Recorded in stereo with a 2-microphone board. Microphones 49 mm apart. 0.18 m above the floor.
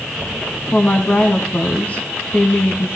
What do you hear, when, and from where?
0.7 s a woman speaking: 35° left (ahead or behind), 1.4 m